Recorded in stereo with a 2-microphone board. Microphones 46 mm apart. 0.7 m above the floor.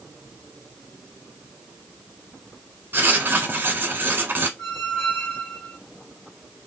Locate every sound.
2.9 s writing: 55° right (ahead or behind), 0.9 m
4.6 s a squeak: 60° left (ahead or behind), 1.9 m